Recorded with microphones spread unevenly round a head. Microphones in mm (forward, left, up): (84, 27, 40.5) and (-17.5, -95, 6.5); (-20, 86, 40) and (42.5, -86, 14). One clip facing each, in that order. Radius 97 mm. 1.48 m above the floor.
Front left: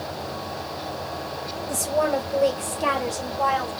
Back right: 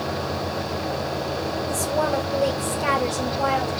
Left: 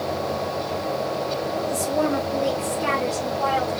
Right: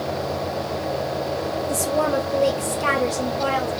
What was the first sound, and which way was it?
A woman speaking, 15° right.